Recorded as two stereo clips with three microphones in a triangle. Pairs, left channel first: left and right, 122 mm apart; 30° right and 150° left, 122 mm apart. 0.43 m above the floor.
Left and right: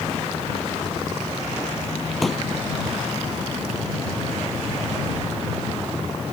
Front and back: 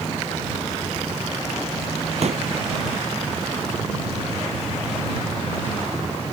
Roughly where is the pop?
Behind.